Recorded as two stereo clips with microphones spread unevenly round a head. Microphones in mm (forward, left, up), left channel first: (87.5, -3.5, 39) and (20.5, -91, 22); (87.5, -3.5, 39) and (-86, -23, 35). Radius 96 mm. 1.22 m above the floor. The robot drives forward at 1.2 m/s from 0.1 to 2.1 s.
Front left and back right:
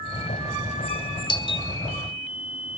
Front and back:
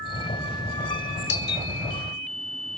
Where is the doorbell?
10° left, 1.3 m; by 1.7 s 15° left, 0.9 m.